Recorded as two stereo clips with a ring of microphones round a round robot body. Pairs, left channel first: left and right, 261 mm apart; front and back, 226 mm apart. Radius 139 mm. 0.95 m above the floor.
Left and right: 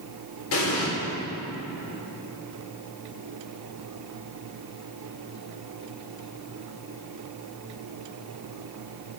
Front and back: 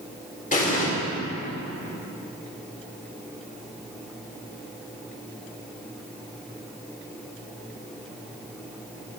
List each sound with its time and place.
0.5 s an explosion: 55° left, 3 m